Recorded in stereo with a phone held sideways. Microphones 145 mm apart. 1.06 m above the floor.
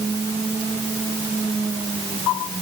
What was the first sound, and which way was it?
Only background noise.